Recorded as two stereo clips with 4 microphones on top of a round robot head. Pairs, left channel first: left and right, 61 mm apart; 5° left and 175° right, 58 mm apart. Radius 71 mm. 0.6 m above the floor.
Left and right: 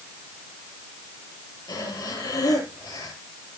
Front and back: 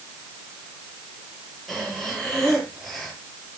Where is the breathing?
95° left, 7 m.